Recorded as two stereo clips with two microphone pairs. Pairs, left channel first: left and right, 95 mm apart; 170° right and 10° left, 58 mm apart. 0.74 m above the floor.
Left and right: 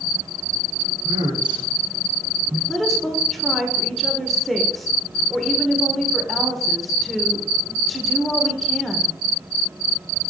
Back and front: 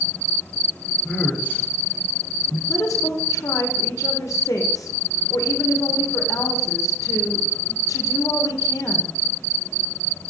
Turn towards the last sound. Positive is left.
turn(degrees=180)